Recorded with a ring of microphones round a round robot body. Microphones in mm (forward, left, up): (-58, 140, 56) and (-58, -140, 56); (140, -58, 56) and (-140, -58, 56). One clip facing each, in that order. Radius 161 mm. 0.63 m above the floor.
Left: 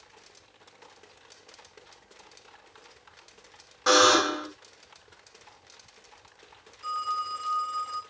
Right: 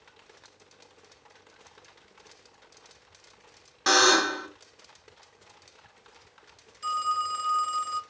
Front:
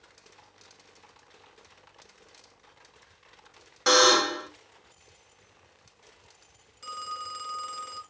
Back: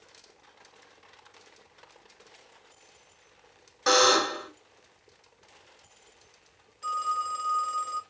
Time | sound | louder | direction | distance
3.9 | a buzzer | left 2 dB, front 1 dB | 50° right | 1.4 m
6.8 | a phone ringing | right 3 dB, back 6 dB | 65° right | 0.8 m